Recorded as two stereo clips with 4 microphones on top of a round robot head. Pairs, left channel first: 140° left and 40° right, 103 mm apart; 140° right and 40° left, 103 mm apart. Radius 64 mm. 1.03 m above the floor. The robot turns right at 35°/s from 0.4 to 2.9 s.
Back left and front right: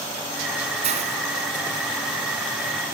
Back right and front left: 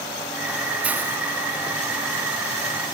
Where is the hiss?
40° right; by 1.2 s 30° right.